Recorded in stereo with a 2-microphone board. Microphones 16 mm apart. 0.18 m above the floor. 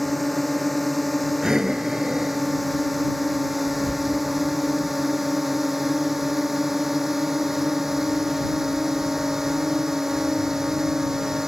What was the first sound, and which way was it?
A drone, centre (ahead or behind).